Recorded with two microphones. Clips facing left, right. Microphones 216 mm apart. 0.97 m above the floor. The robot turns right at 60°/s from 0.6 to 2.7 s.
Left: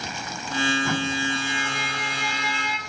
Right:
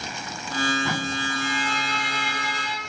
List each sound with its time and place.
1.4 s a violin: 110° right, 1.2 m; by 2.8 s 35° right, 1.2 m